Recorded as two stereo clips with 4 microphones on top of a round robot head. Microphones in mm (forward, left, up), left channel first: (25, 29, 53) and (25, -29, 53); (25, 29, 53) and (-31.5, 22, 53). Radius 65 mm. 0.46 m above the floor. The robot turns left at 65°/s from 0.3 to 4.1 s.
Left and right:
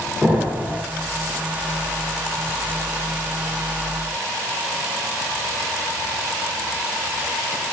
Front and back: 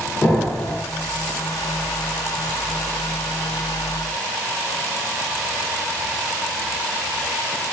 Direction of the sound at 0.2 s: 30° right.